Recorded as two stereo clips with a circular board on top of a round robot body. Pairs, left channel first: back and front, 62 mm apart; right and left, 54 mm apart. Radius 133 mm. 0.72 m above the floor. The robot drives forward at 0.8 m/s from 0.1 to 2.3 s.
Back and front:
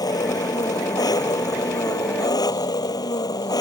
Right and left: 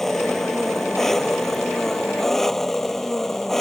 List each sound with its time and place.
0.0 s an engine running: 175° right